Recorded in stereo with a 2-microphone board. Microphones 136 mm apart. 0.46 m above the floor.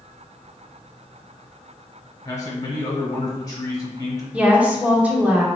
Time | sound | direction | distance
2.2 | a man speaking | 30° left (ahead or behind) | 1.5 m
4.3 | a woman speaking | 10° right (ahead or behind) | 1.0 m